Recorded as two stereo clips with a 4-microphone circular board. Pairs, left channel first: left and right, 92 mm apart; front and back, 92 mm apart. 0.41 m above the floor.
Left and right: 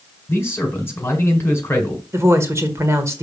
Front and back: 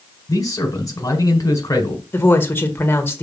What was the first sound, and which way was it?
A man speaking, 35° left.